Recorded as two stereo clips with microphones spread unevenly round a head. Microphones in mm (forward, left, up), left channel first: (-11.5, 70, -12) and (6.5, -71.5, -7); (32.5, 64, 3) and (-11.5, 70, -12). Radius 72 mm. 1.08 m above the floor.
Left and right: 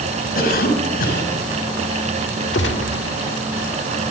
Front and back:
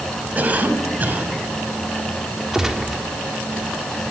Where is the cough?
120° left, 6.5 m.